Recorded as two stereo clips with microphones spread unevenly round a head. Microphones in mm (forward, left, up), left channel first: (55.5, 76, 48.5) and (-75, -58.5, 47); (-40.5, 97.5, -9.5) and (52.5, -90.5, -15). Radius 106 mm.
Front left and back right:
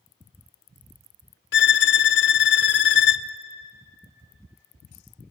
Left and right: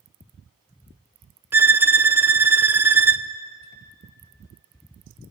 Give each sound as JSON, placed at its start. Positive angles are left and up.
{"t": 1.5, "sound": "a violin", "azimuth_deg": 15, "distance_m": 0.8}